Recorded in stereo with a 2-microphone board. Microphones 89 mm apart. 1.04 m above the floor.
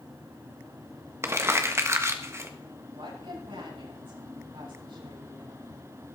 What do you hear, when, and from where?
1.2 s crumpling: 30° right (ahead or behind), 1.4 m
3.0 s a woman speaking: 75° right (ahead or behind), 7 m